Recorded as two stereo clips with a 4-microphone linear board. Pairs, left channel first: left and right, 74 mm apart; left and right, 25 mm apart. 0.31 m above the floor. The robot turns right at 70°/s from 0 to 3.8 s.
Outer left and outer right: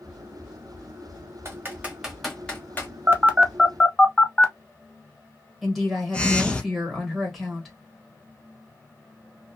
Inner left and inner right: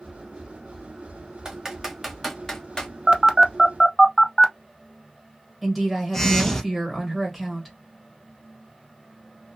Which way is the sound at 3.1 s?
40° right (ahead or behind).